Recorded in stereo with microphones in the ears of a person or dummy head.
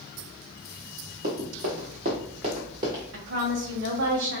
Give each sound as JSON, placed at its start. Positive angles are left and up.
{"t": 1.2, "sound": "running footsteps", "side_deg": -40, "distance_m": 1.9}
{"t": 3.1, "sound": "a woman speaking", "side_deg": -60, "distance_m": 1.1}